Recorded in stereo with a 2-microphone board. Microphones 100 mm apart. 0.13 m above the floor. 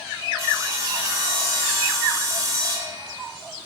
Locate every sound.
0.4 s sawing: 30° right (ahead or behind), 0.9 m